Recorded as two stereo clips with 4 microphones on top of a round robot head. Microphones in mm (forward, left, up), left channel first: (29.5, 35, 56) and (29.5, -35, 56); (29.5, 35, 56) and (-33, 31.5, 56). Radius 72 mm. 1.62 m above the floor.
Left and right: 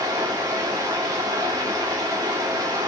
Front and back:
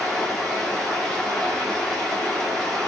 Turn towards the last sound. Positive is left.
turn(degrees=-80)